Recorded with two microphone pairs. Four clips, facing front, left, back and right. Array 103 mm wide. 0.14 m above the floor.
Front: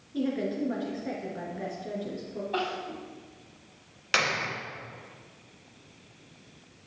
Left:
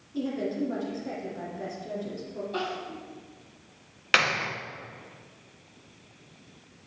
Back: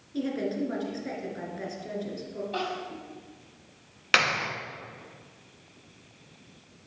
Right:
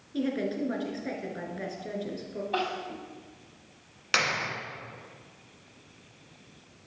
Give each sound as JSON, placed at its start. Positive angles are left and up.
{"t": 0.1, "sound": "a woman speaking", "azimuth_deg": -105, "distance_m": 2.5}
{"t": 2.5, "sound": "crying", "azimuth_deg": -80, "distance_m": 4.5}
{"t": 4.1, "sound": "a clap", "azimuth_deg": 140, "distance_m": 1.1}